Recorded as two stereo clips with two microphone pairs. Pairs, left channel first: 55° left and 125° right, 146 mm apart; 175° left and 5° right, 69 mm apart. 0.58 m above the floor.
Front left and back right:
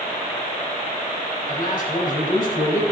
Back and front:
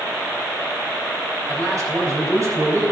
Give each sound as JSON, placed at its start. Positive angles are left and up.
{"t": 1.5, "sound": "a man speaking", "azimuth_deg": 30, "distance_m": 3.5}